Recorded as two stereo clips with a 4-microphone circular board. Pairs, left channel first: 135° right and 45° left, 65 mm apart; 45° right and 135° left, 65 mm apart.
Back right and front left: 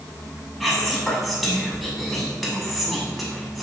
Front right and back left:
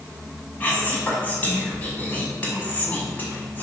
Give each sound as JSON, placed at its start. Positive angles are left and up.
{"t": 0.6, "sound": "whispering", "azimuth_deg": -45, "distance_m": 1.0}